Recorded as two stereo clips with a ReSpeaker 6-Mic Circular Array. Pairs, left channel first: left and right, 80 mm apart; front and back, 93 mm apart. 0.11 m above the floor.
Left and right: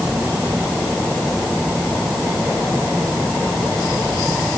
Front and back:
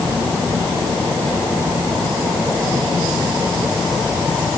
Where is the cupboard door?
No cupboard door in this recording.